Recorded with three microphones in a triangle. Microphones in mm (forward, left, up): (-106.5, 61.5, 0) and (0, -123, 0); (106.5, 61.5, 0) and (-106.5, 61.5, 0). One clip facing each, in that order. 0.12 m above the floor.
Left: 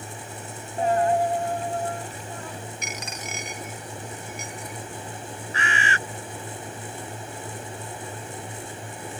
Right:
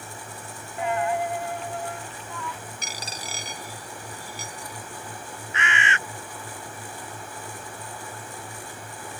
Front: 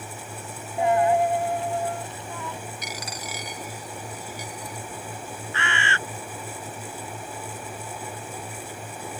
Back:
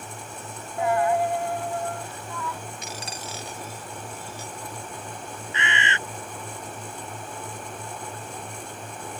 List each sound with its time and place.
0.8 s a dropped coin: 70° left
2.8 s a dropped coin: 115° right
5.5 s a bird: 120° left